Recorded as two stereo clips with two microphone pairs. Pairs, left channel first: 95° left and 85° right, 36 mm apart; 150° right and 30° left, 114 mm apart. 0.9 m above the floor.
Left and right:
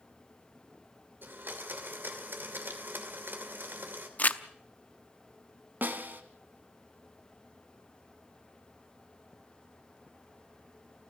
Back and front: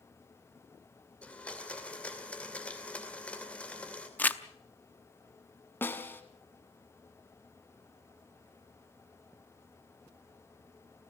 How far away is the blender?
About 2.5 m.